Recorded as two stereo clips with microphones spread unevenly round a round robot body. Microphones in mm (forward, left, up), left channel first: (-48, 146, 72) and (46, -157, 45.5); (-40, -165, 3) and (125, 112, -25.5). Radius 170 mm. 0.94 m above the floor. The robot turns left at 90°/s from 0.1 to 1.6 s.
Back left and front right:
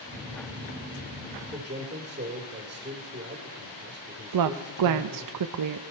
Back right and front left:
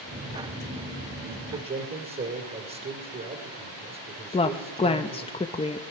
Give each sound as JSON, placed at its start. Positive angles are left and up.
{"t": 1.5, "sound": "a man speaking", "azimuth_deg": 5, "distance_m": 2.5}
{"t": 4.3, "sound": "a woman speaking", "azimuth_deg": -45, "distance_m": 0.6}